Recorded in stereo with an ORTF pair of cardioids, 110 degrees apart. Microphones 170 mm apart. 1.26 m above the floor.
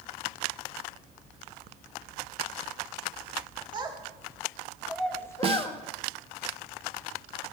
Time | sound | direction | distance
3.7 | a child speaking | 30° right | 1.5 m
5.4 | a snare drum | 35° right | 0.6 m